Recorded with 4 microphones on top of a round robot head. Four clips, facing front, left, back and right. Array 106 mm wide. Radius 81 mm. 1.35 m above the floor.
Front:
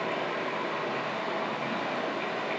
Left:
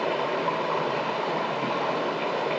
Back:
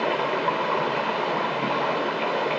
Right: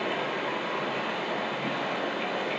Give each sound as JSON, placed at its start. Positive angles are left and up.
{"t": 0.0, "sound": "running water", "azimuth_deg": 155, "distance_m": 2.5}